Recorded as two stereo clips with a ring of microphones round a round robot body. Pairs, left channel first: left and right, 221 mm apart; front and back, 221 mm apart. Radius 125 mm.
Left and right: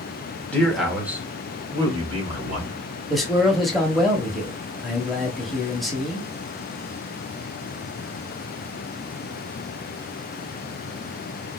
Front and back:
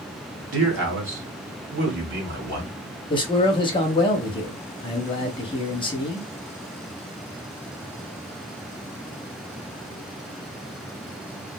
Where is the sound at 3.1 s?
Straight ahead, 1.0 m.